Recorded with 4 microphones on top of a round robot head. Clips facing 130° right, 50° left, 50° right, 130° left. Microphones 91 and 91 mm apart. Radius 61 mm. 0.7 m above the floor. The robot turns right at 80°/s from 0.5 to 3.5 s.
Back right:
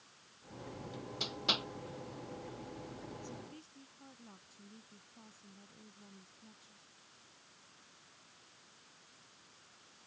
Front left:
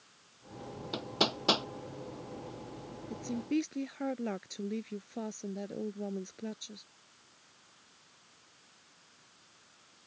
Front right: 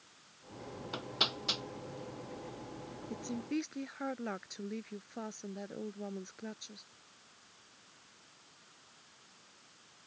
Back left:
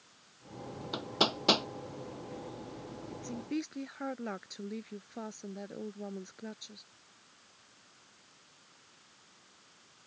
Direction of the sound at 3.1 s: 15° left.